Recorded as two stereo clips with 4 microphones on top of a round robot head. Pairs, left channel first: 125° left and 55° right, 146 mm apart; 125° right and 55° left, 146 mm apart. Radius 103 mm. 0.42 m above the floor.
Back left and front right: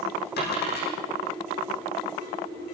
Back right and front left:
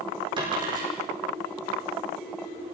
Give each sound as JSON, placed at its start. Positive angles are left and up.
{"t": 0.4, "sound": "a dropped coin", "azimuth_deg": 115, "distance_m": 10.0}